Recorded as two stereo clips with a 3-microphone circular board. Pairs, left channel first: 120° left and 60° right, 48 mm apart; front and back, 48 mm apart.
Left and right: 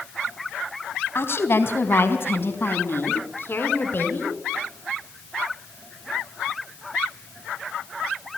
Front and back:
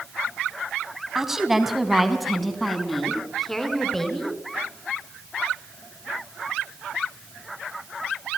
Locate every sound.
1.1 s a woman speaking: 100° left, 3 m; by 4.4 s 80° left, 4.5 m